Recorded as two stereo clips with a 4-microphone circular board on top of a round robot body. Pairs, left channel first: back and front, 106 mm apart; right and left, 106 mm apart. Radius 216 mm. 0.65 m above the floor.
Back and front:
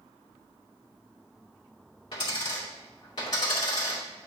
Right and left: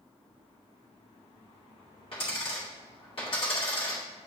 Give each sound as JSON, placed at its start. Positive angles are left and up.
{"t": 2.1, "sound": "a dropped coin", "azimuth_deg": -130, "distance_m": 2.0}